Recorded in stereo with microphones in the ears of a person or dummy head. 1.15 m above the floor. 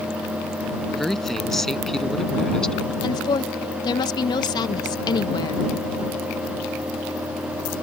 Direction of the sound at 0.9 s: Centre (ahead or behind).